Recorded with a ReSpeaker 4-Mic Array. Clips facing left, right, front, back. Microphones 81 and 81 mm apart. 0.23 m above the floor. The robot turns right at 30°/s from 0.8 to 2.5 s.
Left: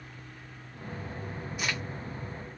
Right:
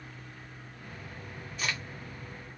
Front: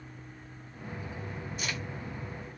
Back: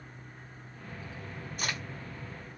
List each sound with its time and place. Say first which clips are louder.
1.6 s a crack: left 1 dB, back 2 dB; 160° left, 2.5 m; by 1.8 s 170° left, 2.5 m